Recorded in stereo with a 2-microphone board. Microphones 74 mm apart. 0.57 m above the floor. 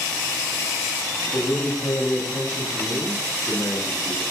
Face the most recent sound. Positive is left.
turn(degrees=-10)  # may be behind; listen again after turning